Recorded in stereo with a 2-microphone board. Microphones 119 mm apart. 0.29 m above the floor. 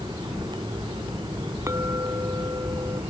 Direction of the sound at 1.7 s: 30° right (ahead or behind).